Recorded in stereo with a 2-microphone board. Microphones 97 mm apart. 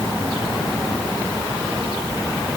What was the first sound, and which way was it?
Only background noise.